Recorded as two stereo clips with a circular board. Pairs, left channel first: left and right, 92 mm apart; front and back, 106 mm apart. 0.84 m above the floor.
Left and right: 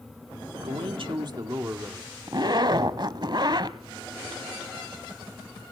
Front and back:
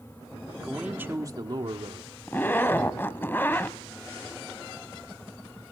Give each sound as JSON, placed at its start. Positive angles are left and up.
{"t": 0.5, "sound": "a man speaking", "azimuth_deg": -90, "distance_m": 1.9}
{"t": 2.3, "sound": "a zipper", "azimuth_deg": -65, "distance_m": 1.1}